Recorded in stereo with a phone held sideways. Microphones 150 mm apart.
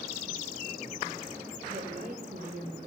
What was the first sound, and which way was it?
A woman speaking, 60° right (ahead or behind).